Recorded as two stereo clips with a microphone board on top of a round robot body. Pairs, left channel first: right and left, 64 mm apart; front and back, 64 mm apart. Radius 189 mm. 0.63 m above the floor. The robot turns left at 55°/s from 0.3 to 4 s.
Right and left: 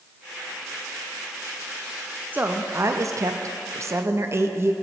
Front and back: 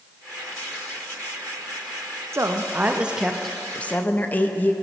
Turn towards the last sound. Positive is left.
turn(degrees=55)